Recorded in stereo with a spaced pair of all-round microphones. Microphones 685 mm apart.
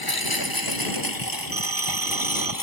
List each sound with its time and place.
0.0 s a lawn mower: 30° left (ahead or behind)
1.5 s a phone ringing: 35° right (ahead or behind)